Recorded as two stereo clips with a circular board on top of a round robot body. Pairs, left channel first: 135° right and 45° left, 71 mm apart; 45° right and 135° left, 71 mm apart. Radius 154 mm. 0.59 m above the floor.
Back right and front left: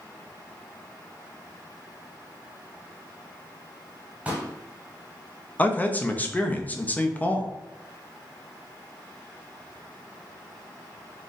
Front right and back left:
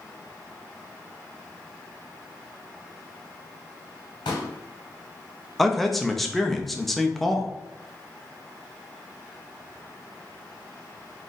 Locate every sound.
4.2 s a pop: 30° right, 0.8 m
5.6 s a man speaking: 130° right, 0.8 m